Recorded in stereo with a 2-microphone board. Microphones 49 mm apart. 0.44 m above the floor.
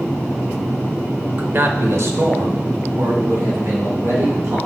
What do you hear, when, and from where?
1.4 s a man speaking: 35° right (ahead or behind), 1.1 m; by 4.6 s 60° right (ahead or behind), 4 m